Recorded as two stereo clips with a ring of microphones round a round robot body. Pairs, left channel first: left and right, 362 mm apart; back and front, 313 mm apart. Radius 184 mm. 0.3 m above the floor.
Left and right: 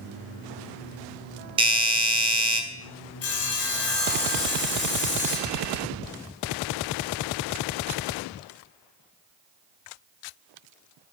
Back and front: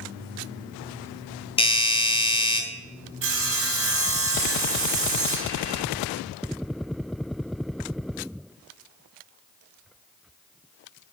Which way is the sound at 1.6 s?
140° right.